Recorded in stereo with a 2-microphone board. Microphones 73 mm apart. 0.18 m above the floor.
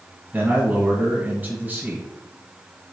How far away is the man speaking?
About 1.4 m.